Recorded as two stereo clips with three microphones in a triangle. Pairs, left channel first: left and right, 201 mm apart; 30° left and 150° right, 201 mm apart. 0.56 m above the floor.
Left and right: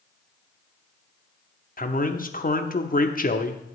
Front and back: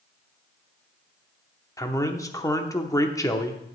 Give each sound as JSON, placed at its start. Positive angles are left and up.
{"t": 1.8, "sound": "a man speaking", "azimuth_deg": 95, "distance_m": 0.8}